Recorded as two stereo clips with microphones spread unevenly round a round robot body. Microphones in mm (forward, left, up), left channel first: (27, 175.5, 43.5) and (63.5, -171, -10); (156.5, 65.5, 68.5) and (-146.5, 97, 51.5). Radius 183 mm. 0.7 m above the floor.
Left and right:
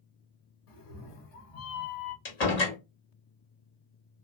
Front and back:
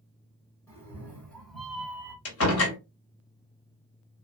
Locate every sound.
0.7 s a cat meowing: 75° left, 1.6 m; by 2.1 s 95° left, 0.9 m
2.2 s a door slam: 35° left, 1.5 m